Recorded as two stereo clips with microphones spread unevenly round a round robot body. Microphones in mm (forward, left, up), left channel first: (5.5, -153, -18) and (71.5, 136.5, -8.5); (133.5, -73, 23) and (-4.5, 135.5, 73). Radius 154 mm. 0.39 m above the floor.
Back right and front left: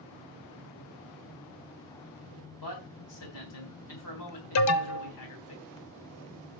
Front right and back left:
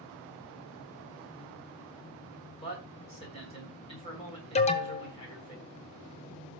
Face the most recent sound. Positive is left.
turn(degrees=-105)